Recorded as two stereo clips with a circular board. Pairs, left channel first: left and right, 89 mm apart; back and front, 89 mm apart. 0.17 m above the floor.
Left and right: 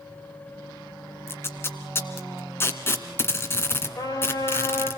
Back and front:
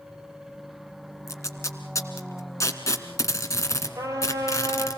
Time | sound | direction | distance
1.3 | tape being pulled | 140° left | 2.0 m
4.0 | a trumpet | 55° left | 5 m